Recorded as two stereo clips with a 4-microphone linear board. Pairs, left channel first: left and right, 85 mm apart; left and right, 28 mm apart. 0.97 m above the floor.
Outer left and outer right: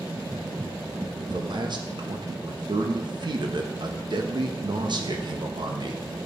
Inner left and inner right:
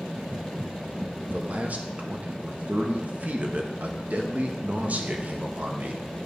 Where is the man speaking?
60° right (ahead or behind), 1.1 m.